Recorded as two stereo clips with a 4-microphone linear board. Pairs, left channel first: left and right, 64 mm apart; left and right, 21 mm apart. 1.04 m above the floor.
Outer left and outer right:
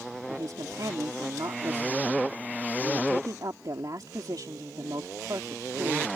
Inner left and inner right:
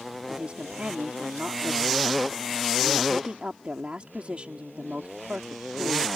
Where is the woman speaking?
75° right (ahead or behind).